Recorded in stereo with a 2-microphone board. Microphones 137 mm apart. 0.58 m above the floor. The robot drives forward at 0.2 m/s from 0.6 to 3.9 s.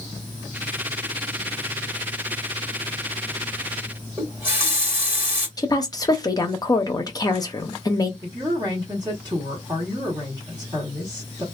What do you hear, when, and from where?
4.2 s a running tap: 15° right (ahead or behind), 1.5 m
5.6 s a woman speaking: 30° left (ahead or behind), 0.6 m
8.2 s a woman speaking: 30° right (ahead or behind), 1.5 m